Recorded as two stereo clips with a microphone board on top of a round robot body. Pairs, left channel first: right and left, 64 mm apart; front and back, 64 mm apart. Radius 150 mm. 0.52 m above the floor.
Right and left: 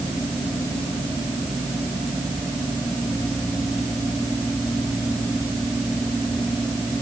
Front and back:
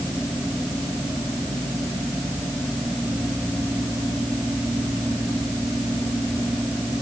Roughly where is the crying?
I don't hear crying.